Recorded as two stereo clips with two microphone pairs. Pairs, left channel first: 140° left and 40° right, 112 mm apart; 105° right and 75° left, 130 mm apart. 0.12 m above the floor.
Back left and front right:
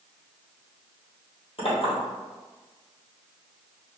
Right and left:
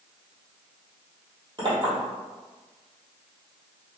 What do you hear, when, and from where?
1.6 s a clink: 120° left, 2.0 m